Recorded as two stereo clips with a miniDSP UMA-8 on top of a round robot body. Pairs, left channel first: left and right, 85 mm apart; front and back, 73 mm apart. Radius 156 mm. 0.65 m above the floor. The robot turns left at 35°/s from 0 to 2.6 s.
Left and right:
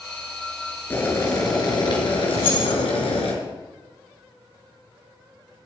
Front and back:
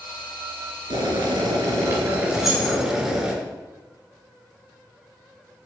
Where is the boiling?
155° left, 3.5 m; by 3.3 s 100° left, 3.5 m.